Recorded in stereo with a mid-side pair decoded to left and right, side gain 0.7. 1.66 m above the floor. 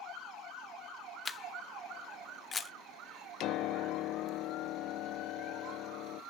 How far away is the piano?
About 0.6 m.